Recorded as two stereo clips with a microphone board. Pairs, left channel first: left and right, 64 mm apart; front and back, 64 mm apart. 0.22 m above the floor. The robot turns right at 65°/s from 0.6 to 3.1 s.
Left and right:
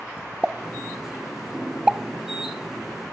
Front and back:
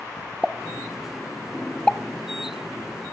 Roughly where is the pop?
Behind right.